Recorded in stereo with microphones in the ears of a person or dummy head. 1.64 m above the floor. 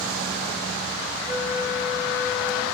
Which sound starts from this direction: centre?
A flute, at 1.3 s.